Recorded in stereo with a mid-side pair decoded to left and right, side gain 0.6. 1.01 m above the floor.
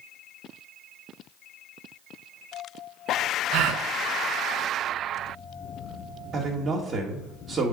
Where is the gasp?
65° right, 0.7 m.